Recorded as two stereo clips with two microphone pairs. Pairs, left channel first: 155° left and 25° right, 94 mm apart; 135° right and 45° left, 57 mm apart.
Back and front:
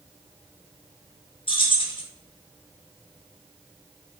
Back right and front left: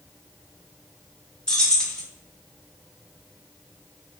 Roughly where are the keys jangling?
Behind left.